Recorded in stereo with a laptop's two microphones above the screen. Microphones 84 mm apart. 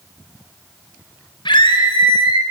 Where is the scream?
70° left (ahead or behind), 3.5 m.